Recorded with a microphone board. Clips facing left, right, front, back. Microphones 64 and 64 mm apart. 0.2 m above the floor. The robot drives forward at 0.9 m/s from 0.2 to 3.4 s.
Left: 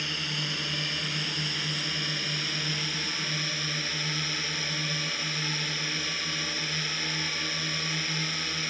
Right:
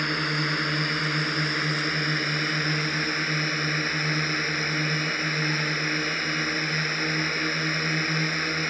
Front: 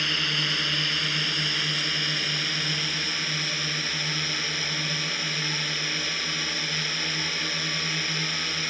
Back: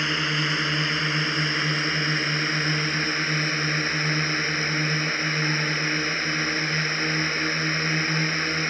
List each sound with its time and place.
0.0 s a drone: 115° right; by 8.7 s 130° right